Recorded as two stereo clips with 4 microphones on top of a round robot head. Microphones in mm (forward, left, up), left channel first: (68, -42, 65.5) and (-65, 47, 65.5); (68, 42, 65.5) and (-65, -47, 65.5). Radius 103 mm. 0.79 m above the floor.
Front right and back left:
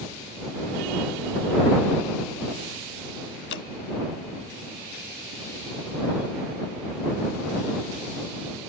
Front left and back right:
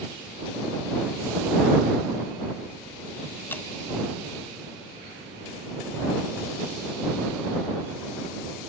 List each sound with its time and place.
3.5 s dripping: 45° right